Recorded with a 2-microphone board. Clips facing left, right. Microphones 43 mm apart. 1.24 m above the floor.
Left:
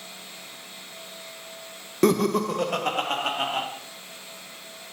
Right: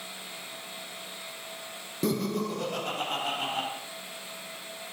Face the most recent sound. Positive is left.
turn(degrees=80)